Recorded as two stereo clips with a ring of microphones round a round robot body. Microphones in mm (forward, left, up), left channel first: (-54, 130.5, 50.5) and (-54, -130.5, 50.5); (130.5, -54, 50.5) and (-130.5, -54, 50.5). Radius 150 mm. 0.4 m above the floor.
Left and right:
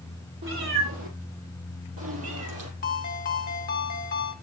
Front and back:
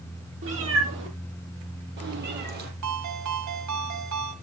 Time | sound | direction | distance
0.4 | a cat meowing | 135° right | 6.5 m
2.8 | a ringtone | 150° left | 2.5 m